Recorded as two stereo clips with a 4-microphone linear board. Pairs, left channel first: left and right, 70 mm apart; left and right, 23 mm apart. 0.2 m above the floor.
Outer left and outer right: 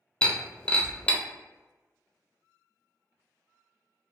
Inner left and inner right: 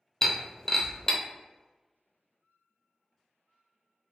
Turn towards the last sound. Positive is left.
turn(degrees=15)  # may be behind; listen again after turning